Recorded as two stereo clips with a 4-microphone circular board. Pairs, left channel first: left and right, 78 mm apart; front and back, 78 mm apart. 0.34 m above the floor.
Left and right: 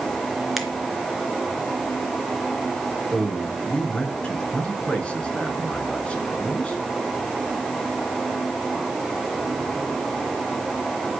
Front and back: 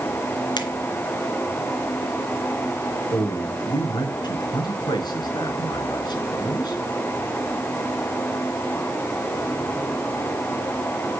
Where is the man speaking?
15° left, 4.5 m.